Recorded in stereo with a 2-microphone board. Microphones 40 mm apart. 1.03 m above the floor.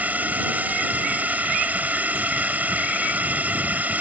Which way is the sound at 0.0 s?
40° right (ahead or behind).